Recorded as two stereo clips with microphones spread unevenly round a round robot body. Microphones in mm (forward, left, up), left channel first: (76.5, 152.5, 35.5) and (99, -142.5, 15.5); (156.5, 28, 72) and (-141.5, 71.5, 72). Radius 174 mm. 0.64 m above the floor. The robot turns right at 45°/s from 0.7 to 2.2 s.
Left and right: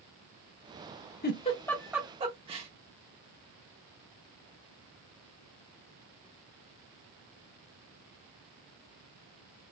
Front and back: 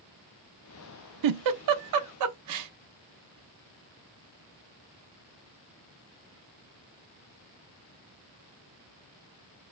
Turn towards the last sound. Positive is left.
turn(degrees=-160)